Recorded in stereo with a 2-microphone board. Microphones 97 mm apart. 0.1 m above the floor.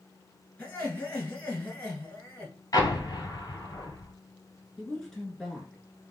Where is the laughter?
20° left (ahead or behind), 1.6 m.